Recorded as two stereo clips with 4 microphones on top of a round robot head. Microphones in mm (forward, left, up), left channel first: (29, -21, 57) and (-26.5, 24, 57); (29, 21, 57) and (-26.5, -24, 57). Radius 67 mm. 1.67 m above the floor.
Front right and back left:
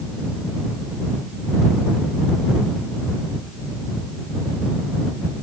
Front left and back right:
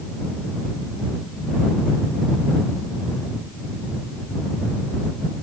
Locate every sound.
Only background noise.